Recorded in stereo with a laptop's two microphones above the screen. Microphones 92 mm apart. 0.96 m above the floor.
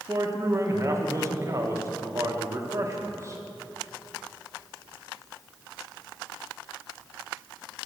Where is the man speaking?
35° right (ahead or behind), 0.9 m.